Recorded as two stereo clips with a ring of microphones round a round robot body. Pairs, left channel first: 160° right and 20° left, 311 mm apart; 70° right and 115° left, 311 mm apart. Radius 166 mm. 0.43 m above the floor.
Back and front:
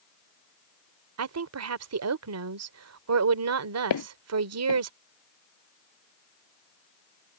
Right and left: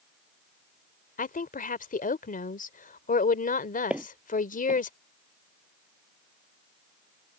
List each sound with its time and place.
1.2 s a woman speaking: 5° right
3.9 s footsteps: 160° right